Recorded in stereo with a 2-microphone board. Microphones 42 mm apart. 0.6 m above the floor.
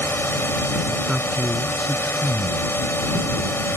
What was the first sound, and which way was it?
A drone, 65° left (ahead or behind).